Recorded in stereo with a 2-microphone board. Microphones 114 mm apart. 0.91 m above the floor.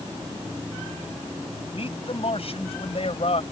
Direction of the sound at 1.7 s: 55° left (ahead or behind).